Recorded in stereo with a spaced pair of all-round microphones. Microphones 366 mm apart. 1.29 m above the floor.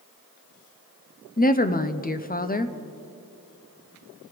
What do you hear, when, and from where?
1.4 s a woman speaking: 25° left (ahead or behind), 0.5 m